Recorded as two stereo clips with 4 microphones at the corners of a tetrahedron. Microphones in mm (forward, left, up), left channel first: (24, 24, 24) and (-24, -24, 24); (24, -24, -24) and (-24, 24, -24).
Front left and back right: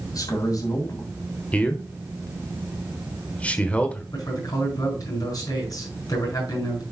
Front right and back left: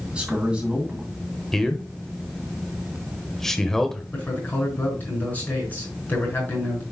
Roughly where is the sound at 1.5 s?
Ahead left.